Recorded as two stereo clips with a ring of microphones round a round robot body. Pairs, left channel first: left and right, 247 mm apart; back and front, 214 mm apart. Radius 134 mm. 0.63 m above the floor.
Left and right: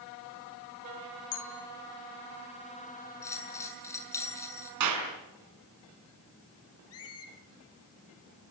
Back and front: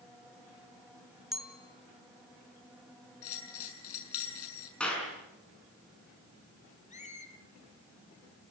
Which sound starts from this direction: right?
A clap, at 4.8 s.